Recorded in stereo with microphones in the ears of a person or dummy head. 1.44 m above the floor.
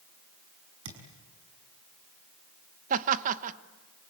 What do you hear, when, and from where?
0.8 s a thud: 75° right (ahead or behind), 5.5 m
2.9 s laughter: 45° right (ahead or behind), 1.4 m